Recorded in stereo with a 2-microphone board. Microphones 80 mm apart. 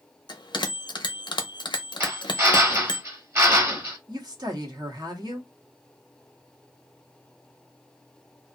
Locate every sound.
0.3 s a bell: 70° left (ahead or behind), 0.7 m
2.0 s a drill: 35° right (ahead or behind), 1.1 m
4.1 s a woman speaking: 60° right (ahead or behind), 1.1 m